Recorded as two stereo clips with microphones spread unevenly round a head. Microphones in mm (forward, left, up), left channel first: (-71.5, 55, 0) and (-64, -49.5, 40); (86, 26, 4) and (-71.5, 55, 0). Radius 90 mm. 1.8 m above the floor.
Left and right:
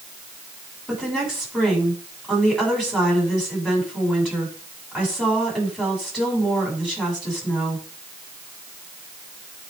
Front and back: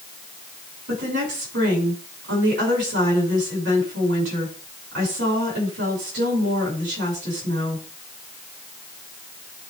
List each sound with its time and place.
0.9 s a woman speaking: 170° right, 6.5 m